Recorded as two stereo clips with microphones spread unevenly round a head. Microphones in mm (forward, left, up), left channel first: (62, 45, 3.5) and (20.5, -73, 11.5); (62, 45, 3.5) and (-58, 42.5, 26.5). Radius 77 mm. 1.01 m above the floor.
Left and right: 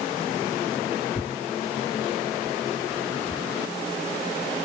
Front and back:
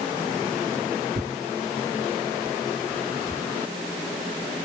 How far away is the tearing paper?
About 0.7 m.